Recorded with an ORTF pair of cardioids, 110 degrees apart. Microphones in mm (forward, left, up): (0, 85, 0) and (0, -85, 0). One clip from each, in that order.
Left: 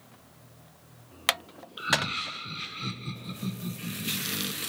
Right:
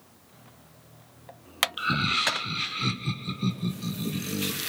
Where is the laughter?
30° right, 0.7 m; by 4.6 s 35° right, 3 m.